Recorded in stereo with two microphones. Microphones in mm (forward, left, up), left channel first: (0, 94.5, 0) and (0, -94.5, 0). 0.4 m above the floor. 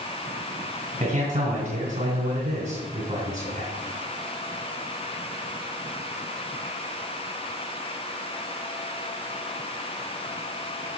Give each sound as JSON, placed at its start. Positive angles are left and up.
{"t": 1.0, "sound": "a man speaking", "side_deg": -40, "distance_m": 3.5}